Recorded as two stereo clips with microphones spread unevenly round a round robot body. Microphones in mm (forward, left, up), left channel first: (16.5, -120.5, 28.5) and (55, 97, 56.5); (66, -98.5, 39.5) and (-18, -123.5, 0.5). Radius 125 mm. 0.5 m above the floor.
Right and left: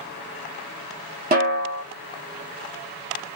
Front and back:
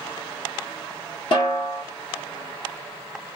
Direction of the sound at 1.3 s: 50° left.